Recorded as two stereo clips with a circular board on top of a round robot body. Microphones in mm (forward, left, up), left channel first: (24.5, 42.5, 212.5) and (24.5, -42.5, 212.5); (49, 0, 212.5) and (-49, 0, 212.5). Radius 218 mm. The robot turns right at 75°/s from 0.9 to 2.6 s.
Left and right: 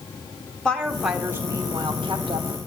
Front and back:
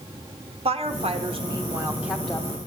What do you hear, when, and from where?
0.7 s a woman speaking: 170° left, 1.5 m; by 2.6 s 65° right, 1.5 m